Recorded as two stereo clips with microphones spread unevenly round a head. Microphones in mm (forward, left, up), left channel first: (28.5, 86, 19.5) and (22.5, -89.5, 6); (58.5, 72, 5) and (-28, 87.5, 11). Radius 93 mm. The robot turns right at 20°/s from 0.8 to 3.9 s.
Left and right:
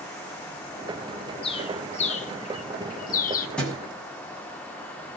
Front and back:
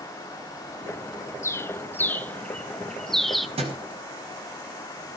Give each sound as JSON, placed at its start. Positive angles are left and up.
{"t": 1.4, "sound": "a bird", "azimuth_deg": 45, "distance_m": 1.2}
{"t": 3.6, "sound": "a thud", "azimuth_deg": 175, "distance_m": 6.5}